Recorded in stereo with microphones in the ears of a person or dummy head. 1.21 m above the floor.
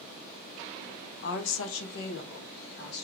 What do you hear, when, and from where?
1.2 s a woman speaking: 65° left (ahead or behind), 0.8 m; by 3.0 s 60° left (ahead or behind), 1.9 m